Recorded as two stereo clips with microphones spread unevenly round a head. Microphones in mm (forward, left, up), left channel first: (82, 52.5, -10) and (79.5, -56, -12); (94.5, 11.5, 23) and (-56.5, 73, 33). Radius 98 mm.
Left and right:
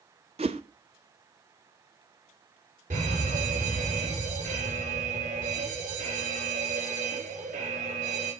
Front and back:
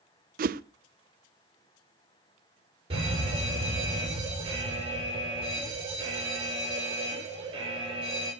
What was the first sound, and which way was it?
A whoosh, 155° right.